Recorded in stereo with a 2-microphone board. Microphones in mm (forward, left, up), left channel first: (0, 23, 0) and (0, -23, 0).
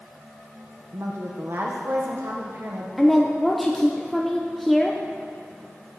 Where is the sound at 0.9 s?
60° right (ahead or behind), 0.8 m.